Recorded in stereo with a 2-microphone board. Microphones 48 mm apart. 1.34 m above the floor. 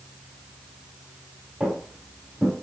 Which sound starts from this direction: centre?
Footsteps, at 1.6 s.